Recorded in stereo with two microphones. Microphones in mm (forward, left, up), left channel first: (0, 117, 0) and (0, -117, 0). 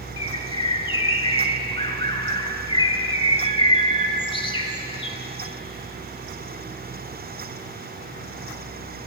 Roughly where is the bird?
Left.